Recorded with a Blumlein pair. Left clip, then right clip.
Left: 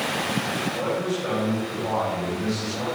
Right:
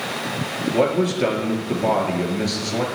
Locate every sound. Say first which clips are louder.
0.7 s a man speaking: right 6 dB; 50° right, 3 m